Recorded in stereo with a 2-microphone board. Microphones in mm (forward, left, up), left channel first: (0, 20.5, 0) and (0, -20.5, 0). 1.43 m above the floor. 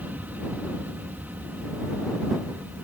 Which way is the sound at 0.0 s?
40° right (ahead or behind).